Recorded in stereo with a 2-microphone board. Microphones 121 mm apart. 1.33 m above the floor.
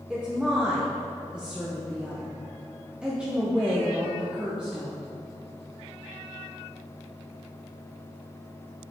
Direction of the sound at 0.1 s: 10° right (ahead or behind).